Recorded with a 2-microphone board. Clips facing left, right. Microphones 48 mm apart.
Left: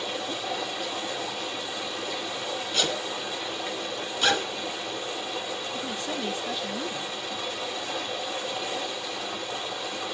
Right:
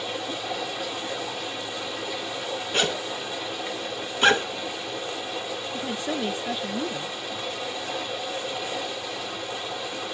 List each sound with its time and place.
0.0 s running water: centre (ahead or behind), 6.5 m
2.7 s a zipper: 35° right (ahead or behind), 1.7 m
5.7 s a woman speaking: 25° right (ahead or behind), 0.7 m